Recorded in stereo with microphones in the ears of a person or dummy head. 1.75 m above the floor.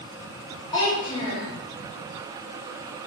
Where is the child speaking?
25° left (ahead or behind), 1.0 m.